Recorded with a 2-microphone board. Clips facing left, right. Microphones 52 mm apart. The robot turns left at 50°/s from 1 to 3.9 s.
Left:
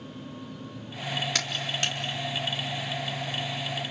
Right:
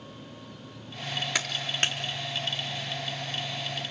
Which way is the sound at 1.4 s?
15° right (ahead or behind).